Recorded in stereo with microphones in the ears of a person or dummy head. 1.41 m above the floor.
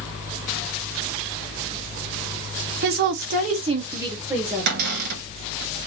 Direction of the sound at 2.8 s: 55° right (ahead or behind).